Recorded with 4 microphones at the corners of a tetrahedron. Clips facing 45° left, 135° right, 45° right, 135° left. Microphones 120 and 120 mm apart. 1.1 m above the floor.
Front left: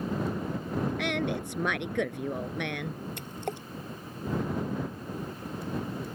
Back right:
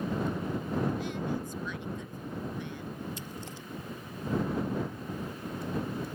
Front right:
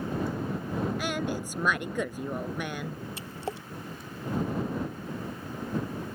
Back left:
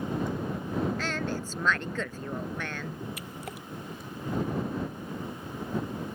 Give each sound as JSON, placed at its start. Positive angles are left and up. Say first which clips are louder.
{"t": 1.0, "sound": "a woman speaking", "louder": "front left 4 dB, front right 1 dB", "azimuth_deg": 30}
{"t": 3.2, "sound": "a splash", "louder": "front left 6 dB, front right 4 dB", "azimuth_deg": 15}